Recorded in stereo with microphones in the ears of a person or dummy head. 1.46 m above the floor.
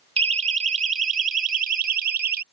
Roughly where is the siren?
Right.